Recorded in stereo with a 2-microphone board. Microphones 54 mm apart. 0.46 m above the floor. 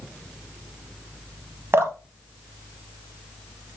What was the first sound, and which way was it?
Dripping, 55° right (ahead or behind).